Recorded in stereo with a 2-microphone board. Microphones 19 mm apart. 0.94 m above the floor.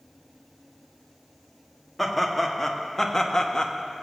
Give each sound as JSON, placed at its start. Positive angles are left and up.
{"t": 2.0, "sound": "laughter", "side_deg": 0, "distance_m": 1.4}